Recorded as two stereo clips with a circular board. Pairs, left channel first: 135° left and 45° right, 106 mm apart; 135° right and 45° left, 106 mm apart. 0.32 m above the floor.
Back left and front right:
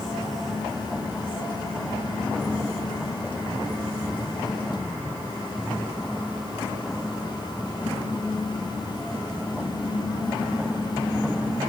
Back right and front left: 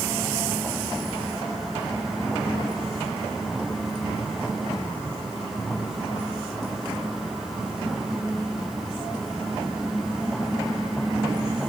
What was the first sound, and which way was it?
Only background noise.